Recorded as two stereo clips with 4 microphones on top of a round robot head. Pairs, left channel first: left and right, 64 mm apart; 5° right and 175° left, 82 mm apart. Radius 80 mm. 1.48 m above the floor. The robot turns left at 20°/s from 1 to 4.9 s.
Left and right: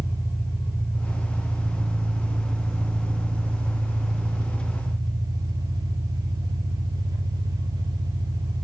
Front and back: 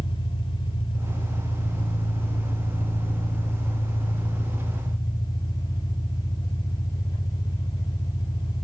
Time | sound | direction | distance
0.0 | an engine running | 20° left | 2.5 m